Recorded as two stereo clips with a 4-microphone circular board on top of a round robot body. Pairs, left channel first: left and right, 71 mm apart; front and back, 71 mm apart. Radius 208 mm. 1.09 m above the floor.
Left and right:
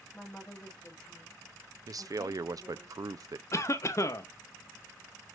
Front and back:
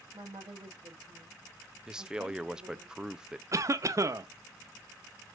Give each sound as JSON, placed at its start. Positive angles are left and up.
{"t": 0.1, "sound": "a woman speaking", "azimuth_deg": 170, "distance_m": 1.4}
{"t": 1.9, "sound": "a man speaking", "azimuth_deg": -105, "distance_m": 0.6}
{"t": 3.5, "sound": "a cough", "azimuth_deg": 135, "distance_m": 0.7}